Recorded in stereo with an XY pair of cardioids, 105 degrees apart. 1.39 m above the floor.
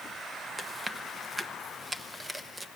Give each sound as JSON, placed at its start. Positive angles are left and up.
{"t": 0.6, "sound": "chewing", "azimuth_deg": -15, "distance_m": 1.2}